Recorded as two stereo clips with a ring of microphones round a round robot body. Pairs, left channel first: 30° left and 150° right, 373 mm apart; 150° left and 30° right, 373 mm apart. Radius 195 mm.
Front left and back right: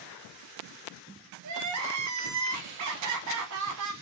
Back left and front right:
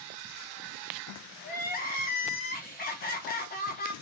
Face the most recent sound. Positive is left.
turn(degrees=-155)